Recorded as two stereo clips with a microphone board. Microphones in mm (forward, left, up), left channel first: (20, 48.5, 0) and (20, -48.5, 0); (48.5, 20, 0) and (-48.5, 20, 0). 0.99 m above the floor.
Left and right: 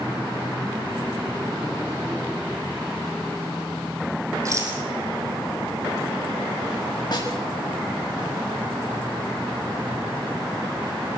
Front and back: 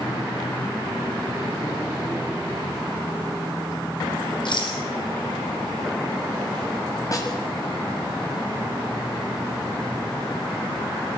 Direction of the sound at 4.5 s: 35° right.